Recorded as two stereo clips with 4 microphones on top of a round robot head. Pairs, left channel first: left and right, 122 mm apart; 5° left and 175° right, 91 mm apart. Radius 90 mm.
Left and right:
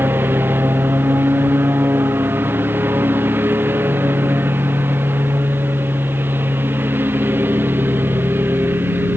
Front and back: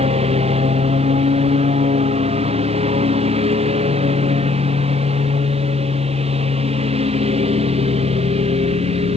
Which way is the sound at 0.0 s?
170° right.